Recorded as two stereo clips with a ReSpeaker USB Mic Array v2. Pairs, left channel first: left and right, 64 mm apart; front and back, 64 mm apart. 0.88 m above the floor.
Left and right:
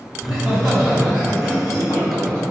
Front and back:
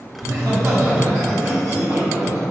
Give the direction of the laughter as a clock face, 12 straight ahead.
5 o'clock.